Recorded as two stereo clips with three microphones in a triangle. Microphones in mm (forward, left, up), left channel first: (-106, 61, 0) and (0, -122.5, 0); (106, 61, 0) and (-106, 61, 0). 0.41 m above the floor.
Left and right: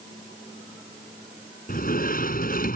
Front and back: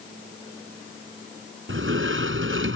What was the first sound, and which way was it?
A sliding door, 165° left.